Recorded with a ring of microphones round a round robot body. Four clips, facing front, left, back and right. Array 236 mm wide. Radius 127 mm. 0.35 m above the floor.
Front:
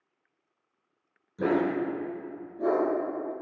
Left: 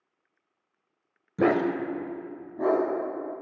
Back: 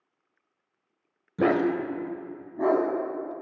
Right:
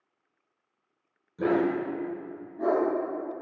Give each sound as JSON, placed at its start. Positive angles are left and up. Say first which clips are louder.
{"t": 1.4, "sound": "a dog barking", "louder": "left 2 dB, back 3 dB", "azimuth_deg": 125, "distance_m": 0.5}